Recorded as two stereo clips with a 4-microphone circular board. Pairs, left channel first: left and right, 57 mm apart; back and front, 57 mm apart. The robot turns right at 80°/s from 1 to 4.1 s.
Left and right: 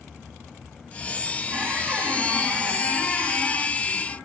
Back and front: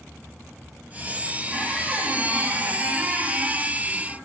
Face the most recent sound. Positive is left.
turn(degrees=125)